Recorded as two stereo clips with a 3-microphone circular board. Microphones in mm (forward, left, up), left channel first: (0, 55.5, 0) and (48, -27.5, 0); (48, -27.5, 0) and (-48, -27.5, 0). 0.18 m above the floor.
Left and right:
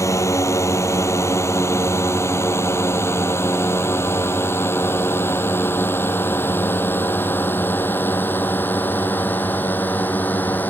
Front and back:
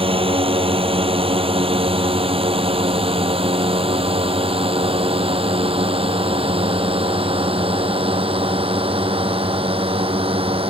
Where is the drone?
175° left; by 10.7 s 170° right.